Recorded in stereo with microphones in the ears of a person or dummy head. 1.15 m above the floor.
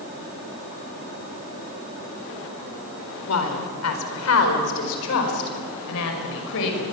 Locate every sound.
3.3 s a woman speaking: 85° left, 4 m; by 6.8 s 75° left (ahead or behind), 5.5 m